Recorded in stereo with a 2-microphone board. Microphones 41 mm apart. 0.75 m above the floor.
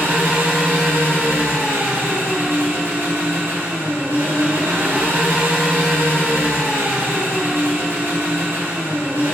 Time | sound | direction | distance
0.0 | an engine running | 65° right (ahead or behind) | 3.5 m